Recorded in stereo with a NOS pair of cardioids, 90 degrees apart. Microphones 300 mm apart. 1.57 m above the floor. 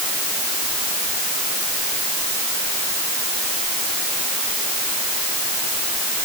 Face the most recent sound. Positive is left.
No sound to turn to.